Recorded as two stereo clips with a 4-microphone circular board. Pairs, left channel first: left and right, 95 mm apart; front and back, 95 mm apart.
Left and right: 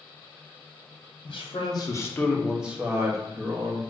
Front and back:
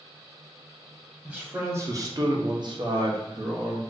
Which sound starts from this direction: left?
A man speaking, at 1.2 s.